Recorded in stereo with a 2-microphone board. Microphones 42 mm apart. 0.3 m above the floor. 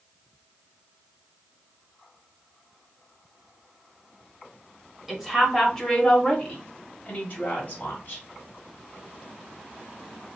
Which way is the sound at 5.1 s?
Centre (ahead or behind).